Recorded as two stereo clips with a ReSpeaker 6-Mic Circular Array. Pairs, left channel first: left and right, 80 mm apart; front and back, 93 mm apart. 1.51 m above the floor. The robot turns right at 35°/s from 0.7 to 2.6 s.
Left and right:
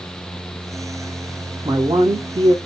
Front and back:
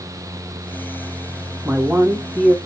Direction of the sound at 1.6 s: 115° right.